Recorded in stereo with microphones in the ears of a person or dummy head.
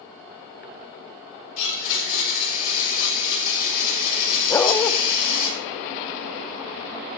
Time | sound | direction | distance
1.6 | a blender | 40° left (ahead or behind) | 6.5 m
4.5 | a dog barking | 15° left (ahead or behind) | 0.7 m